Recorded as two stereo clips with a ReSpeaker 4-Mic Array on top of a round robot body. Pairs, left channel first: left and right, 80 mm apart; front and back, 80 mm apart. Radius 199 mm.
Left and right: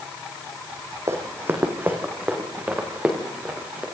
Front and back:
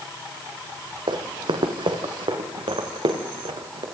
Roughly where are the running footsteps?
Behind right.